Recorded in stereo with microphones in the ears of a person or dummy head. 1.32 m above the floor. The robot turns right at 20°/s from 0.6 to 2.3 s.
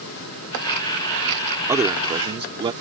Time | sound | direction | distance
1.7 | a man speaking | 20° right (ahead or behind) | ?